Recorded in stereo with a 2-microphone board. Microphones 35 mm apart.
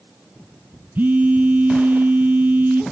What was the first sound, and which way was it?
A phone buzzing, 55° right (ahead or behind).